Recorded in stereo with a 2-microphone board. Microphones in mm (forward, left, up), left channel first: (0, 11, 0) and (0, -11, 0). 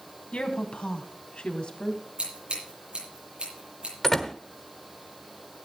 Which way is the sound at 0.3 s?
70° left (ahead or behind).